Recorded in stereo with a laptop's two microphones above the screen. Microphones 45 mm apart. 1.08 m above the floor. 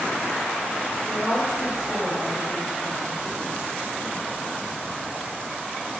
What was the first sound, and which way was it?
A woman speaking, 25° right (ahead or behind).